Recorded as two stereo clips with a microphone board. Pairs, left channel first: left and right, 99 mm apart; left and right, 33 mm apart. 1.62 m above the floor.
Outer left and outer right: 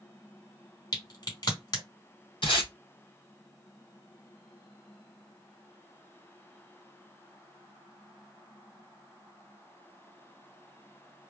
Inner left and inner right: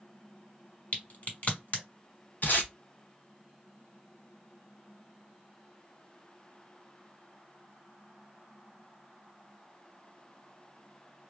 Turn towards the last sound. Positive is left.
turn(degrees=60)  # may be behind; listen again after turning